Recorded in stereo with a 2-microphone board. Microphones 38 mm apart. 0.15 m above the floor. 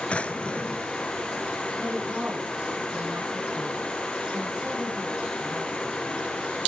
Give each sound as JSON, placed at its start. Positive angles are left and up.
{"t": 0.1, "sound": "a drawer", "side_deg": 35, "distance_m": 0.6}
{"t": 1.8, "sound": "a woman speaking", "side_deg": -30, "distance_m": 6.5}